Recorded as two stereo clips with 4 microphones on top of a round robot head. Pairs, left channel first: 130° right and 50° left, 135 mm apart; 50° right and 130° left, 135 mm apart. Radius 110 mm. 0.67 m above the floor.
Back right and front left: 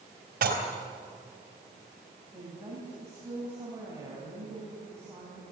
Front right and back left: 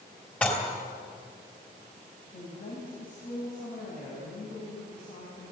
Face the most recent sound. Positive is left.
turn(degrees=-20)